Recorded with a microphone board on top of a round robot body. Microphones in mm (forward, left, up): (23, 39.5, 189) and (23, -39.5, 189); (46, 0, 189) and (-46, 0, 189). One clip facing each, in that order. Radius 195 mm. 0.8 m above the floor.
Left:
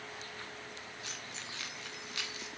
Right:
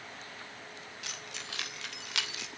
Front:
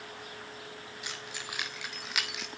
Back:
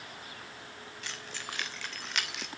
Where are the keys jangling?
75° right, 4.5 m; by 2.5 s 90° right, 2.5 m.